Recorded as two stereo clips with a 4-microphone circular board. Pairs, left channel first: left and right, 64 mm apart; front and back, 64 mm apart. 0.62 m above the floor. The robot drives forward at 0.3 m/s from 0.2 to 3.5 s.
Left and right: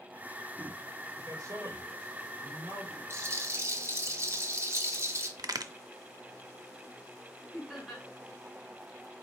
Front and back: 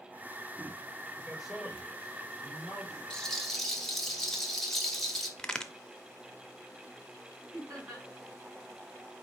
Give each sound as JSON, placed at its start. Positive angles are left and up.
{"t": 1.2, "sound": "a man speaking", "azimuth_deg": -90, "distance_m": 3.0}
{"t": 3.1, "sound": "a rattle", "azimuth_deg": -75, "distance_m": 0.9}
{"t": 5.4, "sound": "a crack", "azimuth_deg": -80, "distance_m": 0.5}
{"t": 7.5, "sound": "laughter", "azimuth_deg": -175, "distance_m": 2.5}